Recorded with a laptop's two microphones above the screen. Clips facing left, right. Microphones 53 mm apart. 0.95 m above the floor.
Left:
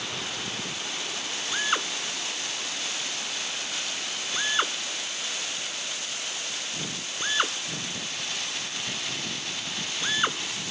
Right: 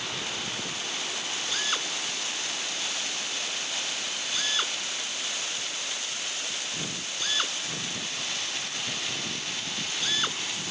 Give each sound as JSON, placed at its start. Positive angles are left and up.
{"t": 1.5, "sound": "a drill", "side_deg": 30}